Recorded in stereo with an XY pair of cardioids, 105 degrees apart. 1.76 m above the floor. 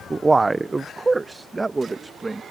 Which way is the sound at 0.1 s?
25° right.